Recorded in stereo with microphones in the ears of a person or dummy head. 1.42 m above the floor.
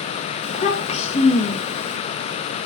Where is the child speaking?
35° left (ahead or behind), 1.1 m.